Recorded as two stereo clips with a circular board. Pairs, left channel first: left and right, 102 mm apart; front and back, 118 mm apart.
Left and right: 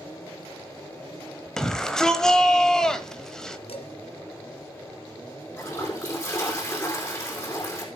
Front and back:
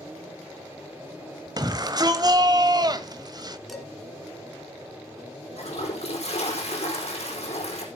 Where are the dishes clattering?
90° left, 1.8 m.